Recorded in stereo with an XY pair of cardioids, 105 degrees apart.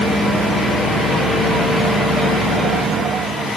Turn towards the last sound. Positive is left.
No sound to turn to.